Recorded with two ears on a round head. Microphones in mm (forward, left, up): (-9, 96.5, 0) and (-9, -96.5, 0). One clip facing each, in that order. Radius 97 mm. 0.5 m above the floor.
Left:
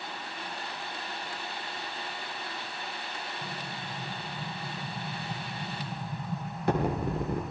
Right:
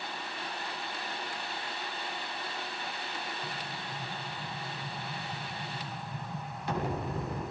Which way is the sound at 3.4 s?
40° left (ahead or behind).